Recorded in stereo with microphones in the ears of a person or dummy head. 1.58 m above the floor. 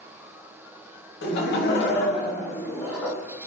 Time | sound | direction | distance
1.2 | laughter | 60° left (ahead or behind) | 0.8 m